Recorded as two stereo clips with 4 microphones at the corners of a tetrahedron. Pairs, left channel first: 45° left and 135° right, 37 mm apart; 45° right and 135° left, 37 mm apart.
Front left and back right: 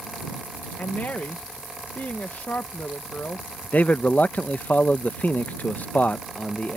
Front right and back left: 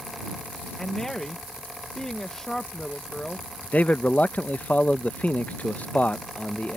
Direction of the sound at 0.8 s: 30° left.